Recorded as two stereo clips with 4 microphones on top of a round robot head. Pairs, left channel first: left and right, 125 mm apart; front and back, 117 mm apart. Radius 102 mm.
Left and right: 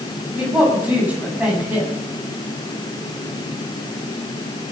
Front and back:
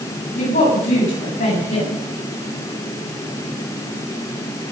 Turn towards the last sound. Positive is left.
turn(degrees=-10)